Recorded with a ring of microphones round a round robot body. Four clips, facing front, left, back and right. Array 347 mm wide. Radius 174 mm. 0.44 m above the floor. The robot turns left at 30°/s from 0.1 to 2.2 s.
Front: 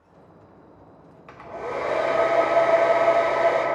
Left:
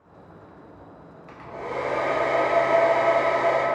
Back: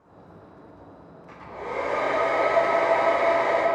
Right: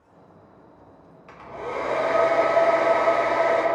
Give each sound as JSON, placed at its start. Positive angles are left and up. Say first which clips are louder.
{"t": 1.3, "sound": "a hair dryer", "louder": "right 1 dB, front 2 dB", "azimuth_deg": -10, "distance_m": 1.6}